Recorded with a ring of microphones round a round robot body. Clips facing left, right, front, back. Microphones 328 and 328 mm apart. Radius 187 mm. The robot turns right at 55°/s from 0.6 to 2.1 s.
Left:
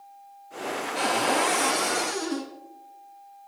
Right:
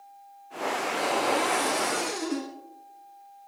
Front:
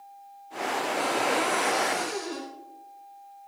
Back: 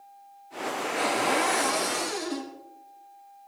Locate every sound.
0.9 s a cupboard door: 125° left, 5.5 m; by 2.5 s 170° right, 5.5 m